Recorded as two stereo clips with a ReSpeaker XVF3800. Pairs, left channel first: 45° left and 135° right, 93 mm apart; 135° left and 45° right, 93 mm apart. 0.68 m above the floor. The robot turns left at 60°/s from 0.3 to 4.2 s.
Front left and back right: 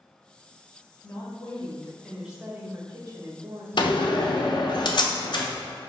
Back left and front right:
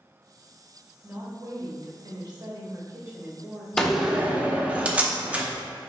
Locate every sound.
1.0 s a woman speaking: 20° left, 1.2 m; by 3.7 s 135° right, 1.2 m
3.8 s a door slam: 55° left, 0.6 m; by 5.5 s 30° left, 0.6 m